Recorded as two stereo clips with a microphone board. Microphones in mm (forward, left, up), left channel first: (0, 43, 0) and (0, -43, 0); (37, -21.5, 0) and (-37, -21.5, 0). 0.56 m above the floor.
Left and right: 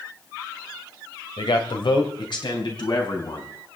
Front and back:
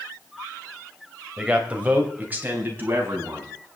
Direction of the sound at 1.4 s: 105° left.